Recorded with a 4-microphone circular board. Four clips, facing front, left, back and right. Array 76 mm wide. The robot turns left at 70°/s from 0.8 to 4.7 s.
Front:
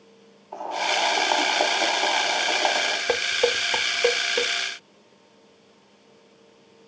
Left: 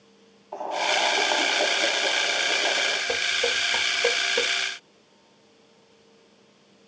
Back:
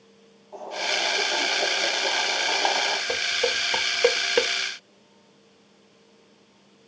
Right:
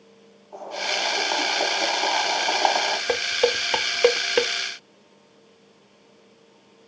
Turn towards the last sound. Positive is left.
turn(degrees=-150)